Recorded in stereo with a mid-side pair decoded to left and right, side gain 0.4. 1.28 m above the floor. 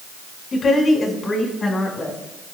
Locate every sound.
0.5 s a woman speaking: 50° left, 6 m; by 2.2 s 30° left, 6.5 m